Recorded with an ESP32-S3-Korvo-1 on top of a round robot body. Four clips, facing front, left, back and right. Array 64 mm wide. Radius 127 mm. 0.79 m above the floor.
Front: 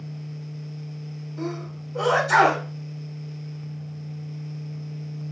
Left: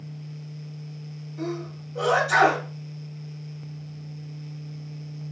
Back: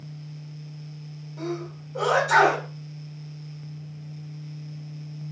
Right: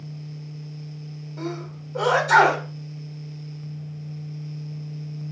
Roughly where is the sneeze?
Right.